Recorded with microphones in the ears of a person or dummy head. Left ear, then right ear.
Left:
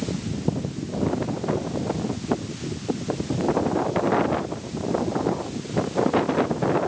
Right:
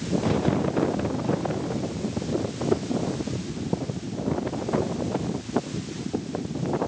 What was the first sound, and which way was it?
Only background noise.